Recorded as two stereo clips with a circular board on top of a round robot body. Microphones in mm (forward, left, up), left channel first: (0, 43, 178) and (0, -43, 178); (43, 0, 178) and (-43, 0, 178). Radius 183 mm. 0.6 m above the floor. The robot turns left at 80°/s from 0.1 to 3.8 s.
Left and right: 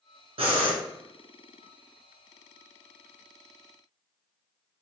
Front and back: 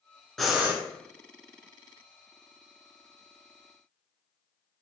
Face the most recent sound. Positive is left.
turn(degrees=0)